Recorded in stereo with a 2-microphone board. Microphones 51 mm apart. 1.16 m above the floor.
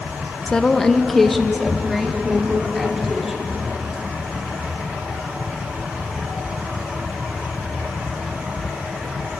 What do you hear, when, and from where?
0.5 s a woman speaking: 15° left (ahead or behind), 1.1 m; by 3.5 s 5° right (ahead or behind), 5 m